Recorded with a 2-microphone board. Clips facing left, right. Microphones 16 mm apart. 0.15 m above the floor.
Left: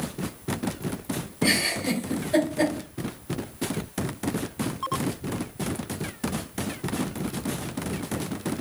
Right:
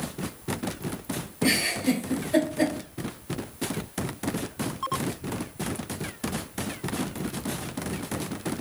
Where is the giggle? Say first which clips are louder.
Even; 15° left (ahead or behind), 1.6 m.